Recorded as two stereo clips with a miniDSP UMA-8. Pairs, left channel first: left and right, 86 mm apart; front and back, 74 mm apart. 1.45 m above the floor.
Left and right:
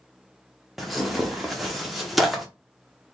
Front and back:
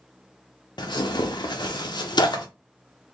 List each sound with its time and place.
0.8 s tearing paper: straight ahead, 0.8 m